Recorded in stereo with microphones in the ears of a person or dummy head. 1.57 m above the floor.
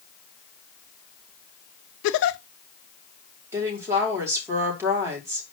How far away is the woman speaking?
About 4.5 m.